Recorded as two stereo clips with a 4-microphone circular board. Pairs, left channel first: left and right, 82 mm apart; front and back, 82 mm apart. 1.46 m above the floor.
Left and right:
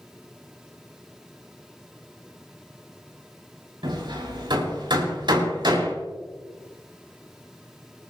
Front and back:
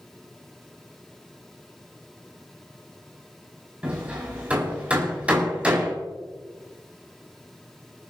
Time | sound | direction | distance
3.8 | hammering | 105° right | 6 m